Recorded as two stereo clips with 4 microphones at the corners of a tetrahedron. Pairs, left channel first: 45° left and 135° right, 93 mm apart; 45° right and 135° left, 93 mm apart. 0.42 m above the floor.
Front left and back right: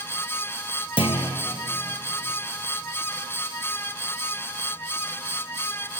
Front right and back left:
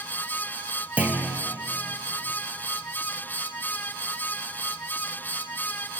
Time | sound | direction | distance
1.0 | a clunk | 60° left | 2 m